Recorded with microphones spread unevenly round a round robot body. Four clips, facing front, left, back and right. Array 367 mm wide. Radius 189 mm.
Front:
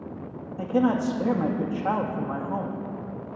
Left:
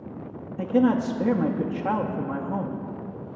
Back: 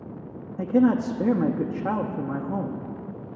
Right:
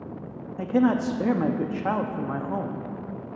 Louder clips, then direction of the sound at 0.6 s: Left 1 dB, back 3 dB; 175° right.